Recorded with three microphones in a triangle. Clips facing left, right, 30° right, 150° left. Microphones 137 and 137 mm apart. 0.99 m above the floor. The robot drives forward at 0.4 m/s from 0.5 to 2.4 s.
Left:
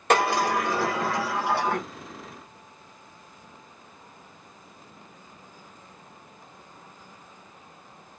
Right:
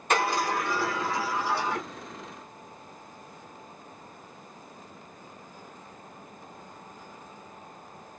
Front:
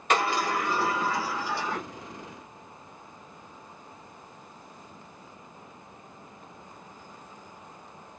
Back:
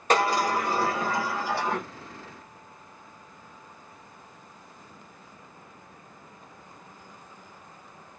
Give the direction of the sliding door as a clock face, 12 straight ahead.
9 o'clock.